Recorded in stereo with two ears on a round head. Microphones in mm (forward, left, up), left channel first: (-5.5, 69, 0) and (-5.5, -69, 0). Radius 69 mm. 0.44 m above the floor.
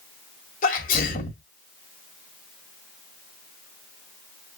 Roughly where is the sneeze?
Left.